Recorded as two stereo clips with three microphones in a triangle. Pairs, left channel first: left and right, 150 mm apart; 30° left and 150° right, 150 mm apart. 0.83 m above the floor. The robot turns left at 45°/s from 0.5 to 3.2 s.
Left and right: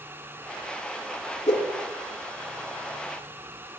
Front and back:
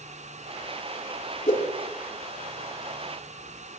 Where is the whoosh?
60° left, 2.5 m; by 1.6 s 50° left, 2.5 m.